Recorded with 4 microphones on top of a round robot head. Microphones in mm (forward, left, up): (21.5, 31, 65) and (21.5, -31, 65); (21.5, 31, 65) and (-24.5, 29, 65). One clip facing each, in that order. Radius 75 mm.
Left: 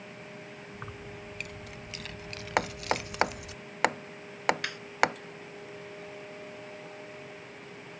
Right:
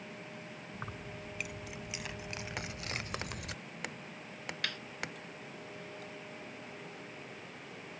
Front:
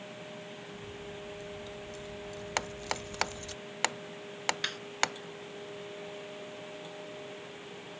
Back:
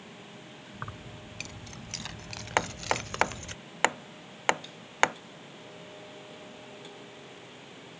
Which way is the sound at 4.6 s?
20° left.